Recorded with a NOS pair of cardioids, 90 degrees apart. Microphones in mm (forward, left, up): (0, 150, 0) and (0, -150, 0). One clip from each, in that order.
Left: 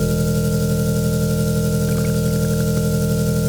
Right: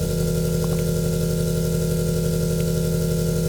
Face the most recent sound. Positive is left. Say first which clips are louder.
# left 3 dB
turn(degrees=15)